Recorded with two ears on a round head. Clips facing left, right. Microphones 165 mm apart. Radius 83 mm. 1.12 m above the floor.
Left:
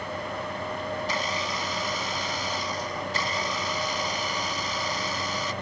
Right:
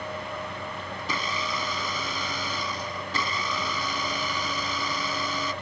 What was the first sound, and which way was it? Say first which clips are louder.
A blender: left 2 dB; 70° right (ahead or behind).